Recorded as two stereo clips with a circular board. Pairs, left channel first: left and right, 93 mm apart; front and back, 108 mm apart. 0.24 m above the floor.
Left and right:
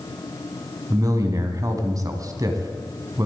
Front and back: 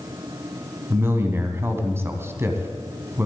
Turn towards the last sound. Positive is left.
turn(degrees=-120)